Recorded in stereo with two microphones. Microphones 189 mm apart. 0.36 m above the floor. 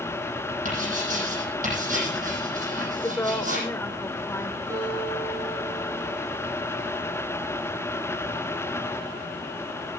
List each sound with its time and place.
0.7 s writing: 45° right (ahead or behind), 10 m
3.0 s a woman speaking: 15° left (ahead or behind), 1.0 m
4.7 s a guitar: 15° right (ahead or behind), 5 m